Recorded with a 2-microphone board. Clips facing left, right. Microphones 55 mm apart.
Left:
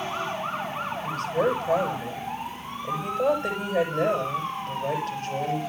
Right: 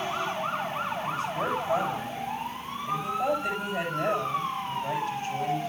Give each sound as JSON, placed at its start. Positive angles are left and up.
{"t": 1.0, "sound": "a woman speaking", "side_deg": 60, "distance_m": 8.5}